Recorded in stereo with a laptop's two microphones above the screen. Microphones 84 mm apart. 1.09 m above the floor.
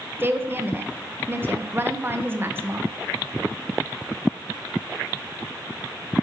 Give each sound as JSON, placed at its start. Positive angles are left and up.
{"t": 0.2, "sound": "a woman speaking", "side_deg": -30, "distance_m": 0.7}